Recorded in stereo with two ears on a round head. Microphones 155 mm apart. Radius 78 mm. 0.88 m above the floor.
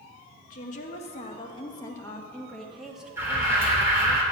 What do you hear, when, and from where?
0.5 s a woman speaking: 50° left (ahead or behind), 1.4 m; by 4.2 s 20° right (ahead or behind), 1.9 m
3.2 s an alarm: 15° right (ahead or behind), 3 m